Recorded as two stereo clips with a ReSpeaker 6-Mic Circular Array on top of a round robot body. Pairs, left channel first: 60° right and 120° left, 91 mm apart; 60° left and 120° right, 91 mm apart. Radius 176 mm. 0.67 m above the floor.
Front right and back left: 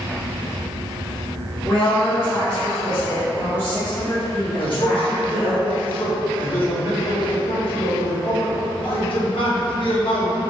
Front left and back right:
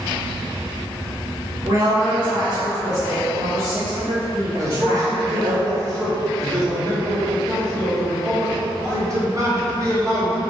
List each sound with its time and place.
1.6 s a woman speaking: 110° right, 1.8 m; by 5.6 s 135° right, 3.5 m
4.6 s a man speaking: 65° right, 1.4 m